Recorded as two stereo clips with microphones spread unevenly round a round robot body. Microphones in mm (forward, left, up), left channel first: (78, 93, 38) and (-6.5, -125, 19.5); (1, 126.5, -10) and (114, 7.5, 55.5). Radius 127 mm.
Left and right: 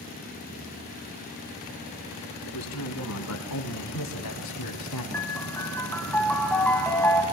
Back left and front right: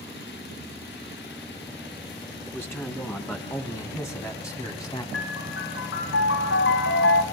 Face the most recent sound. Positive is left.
turn(degrees=150)